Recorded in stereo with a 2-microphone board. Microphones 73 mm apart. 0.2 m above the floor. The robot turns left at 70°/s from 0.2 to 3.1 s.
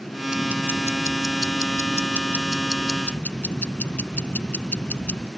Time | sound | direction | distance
0.3 | ticking | 10° right | ?